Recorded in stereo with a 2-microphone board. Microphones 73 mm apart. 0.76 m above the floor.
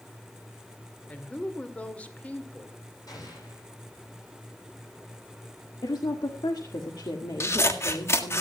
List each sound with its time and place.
1.1 s a woman speaking: 20° left (ahead or behind), 2 m
3.1 s an explosion: 60° left (ahead or behind), 9.5 m
5.8 s a woman speaking: 65° left (ahead or behind), 1.8 m
7.4 s scissors: 35° left (ahead or behind), 1.6 m